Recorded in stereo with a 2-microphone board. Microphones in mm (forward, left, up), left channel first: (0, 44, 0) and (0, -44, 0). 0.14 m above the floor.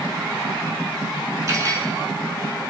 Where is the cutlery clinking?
40° right (ahead or behind), 0.8 m.